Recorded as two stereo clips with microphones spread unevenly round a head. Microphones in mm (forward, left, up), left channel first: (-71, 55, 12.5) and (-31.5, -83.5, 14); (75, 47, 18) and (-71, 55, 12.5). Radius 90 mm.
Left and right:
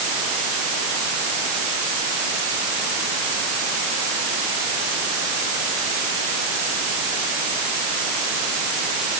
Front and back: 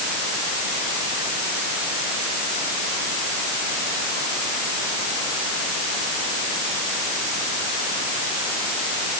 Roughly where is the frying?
I don't hear frying.